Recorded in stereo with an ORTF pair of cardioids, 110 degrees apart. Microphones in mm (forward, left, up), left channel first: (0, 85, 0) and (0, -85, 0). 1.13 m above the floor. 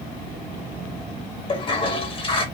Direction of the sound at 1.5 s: 30° left.